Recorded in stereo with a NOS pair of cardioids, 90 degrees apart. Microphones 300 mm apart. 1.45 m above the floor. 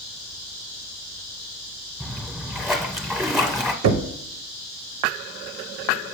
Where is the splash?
Straight ahead, 1.0 m.